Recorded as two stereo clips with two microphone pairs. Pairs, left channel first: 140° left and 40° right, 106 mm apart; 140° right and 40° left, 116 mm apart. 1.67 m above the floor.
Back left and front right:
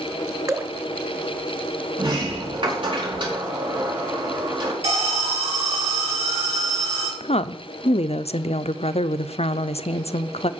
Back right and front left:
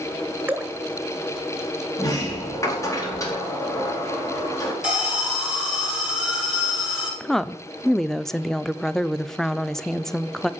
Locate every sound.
0.5 s dripping: 20° right, 1.6 m
2.0 s a sliding door: 80° right, 4 m
4.8 s an alarm: 40° right, 4.5 m
7.2 s a woman speaking: 135° left, 0.5 m